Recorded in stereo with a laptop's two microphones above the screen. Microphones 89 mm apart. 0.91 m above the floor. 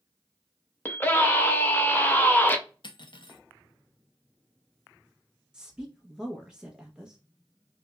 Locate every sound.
0.8 s a scream: 20° left (ahead or behind), 0.7 m
2.8 s cutlery clinking: 60° left (ahead or behind), 0.5 m
5.5 s a woman speaking: 10° right (ahead or behind), 0.6 m